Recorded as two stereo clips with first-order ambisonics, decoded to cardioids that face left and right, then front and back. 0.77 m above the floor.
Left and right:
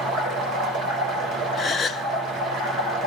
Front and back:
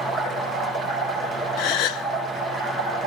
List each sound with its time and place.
0.0 s running water: 70° right, 8.5 m
1.6 s a gasp: 20° left, 0.7 m